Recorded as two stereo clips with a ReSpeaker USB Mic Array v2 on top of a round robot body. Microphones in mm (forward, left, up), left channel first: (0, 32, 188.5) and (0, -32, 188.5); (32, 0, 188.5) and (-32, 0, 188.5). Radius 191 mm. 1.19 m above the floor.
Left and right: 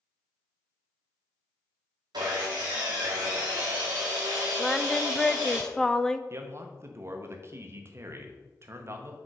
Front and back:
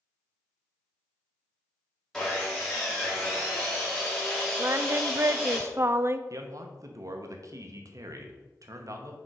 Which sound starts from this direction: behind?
Singing, at 4.6 s.